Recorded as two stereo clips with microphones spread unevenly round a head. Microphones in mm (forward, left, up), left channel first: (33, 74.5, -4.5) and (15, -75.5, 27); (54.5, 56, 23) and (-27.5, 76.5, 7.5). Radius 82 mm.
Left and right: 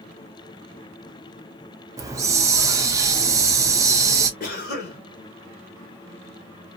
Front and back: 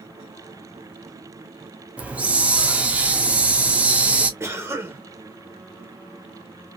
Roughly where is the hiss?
Behind.